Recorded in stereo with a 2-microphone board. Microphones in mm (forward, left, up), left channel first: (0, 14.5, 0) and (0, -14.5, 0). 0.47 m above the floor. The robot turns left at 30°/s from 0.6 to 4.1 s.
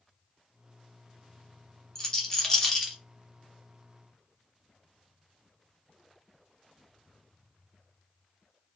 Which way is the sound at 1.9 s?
20° left (ahead or behind).